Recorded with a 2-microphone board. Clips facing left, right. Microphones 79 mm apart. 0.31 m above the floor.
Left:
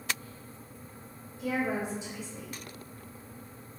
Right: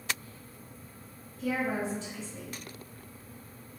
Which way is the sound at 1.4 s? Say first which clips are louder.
Even; 20° left (ahead or behind).